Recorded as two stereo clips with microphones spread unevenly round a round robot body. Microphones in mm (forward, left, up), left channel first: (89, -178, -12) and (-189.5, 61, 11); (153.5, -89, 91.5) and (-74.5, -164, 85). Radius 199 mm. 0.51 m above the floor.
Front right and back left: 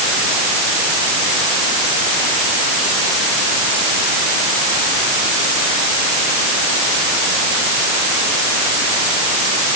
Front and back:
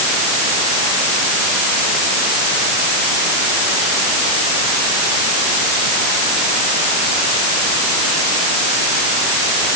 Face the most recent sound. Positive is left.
No sound to turn to.